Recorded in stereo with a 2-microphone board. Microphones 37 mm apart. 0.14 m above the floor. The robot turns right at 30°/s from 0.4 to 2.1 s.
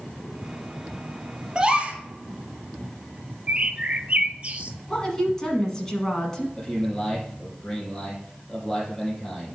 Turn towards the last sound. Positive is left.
turn(degrees=5)  # may be behind; listen again after turning